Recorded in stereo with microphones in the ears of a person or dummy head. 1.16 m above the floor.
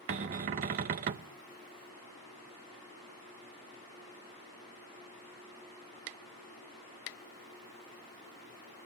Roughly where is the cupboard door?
Right.